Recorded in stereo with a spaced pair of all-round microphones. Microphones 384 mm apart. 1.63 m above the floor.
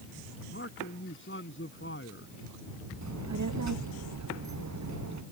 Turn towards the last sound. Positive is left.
turn(degrees=-45)  # may be behind; listen again after turning